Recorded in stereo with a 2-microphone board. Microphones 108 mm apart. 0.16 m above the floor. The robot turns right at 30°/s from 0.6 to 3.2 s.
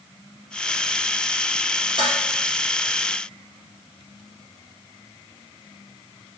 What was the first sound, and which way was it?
Dishes clattering, 50° right (ahead or behind).